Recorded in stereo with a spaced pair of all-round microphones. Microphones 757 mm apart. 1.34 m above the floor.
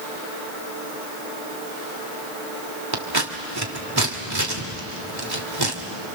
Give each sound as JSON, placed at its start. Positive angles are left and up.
{"t": 2.9, "sound": "scissors", "side_deg": -30, "distance_m": 2.5}